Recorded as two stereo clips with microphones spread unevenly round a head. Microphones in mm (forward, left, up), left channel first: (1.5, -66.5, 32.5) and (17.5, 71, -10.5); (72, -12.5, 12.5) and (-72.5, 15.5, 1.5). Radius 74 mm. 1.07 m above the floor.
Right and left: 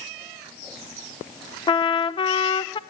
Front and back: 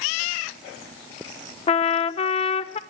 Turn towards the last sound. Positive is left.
turn(degrees=-35)